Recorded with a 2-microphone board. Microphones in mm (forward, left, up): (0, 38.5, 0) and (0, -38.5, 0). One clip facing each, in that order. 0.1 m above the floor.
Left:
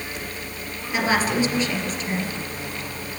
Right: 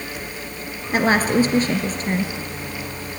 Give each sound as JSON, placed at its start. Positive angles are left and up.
{"t": 0.9, "sound": "a woman speaking", "side_deg": -40, "distance_m": 2.0}